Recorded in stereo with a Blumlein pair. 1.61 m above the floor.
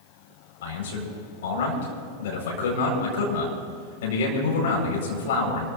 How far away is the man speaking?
About 4.5 m.